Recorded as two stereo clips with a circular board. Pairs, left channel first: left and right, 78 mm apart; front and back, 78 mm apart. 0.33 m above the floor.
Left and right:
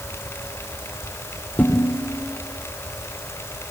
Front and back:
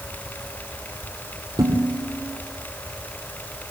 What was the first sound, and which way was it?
Dishes clattering, 155° left.